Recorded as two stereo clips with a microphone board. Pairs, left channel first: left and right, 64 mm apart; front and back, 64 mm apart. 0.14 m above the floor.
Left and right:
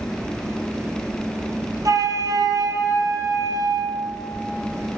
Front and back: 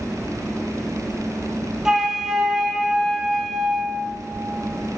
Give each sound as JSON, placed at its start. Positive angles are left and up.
{"t": 1.9, "sound": "a flute", "azimuth_deg": -100, "distance_m": 1.0}